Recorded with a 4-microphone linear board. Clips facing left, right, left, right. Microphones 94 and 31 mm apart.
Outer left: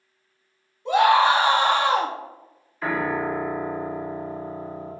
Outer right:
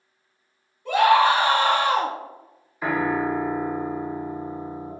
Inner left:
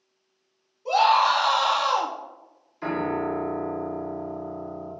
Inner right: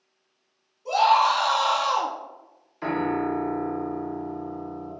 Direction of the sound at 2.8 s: 10° right (ahead or behind).